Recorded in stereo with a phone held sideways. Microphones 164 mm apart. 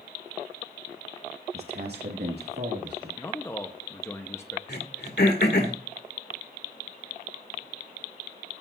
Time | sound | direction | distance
1.5 | a man speaking | 75° right (ahead or behind) | 1.0 m
3.2 | a man speaking | 15° left (ahead or behind) | 0.8 m
4.7 | throat clearing | 80° left | 2.5 m